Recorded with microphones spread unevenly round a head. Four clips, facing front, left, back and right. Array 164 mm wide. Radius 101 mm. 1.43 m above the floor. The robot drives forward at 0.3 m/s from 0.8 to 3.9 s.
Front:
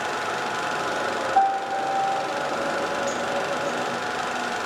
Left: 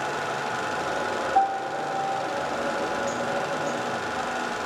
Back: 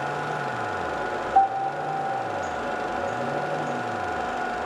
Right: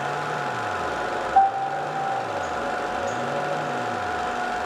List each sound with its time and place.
1.4 s a piano: 150° left, 1.5 m; by 2.2 s 155° left, 1.8 m